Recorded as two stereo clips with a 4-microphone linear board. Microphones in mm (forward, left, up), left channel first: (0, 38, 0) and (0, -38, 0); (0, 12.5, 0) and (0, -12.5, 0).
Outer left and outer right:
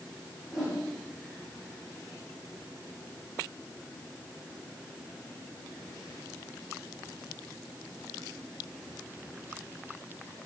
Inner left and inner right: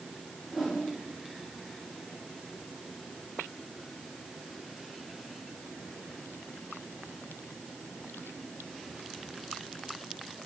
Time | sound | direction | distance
0.5 | a whoosh | 5° right (ahead or behind) | 3 m